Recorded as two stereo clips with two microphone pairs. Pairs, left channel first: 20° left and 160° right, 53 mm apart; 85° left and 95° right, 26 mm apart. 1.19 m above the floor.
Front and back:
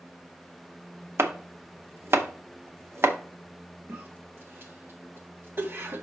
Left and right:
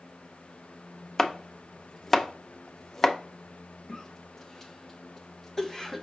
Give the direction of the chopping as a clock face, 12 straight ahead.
7 o'clock.